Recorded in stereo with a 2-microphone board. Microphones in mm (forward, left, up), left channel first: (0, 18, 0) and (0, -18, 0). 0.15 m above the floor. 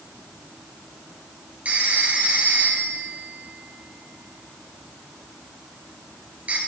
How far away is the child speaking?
No child speaking in this recording.